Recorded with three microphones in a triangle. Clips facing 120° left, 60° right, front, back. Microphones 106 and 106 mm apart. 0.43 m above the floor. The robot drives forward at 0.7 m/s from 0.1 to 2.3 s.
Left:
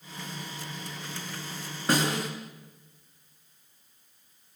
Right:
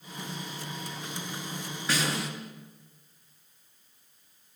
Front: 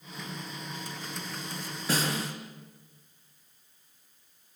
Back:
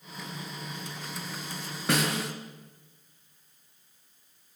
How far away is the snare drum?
About 4.5 m.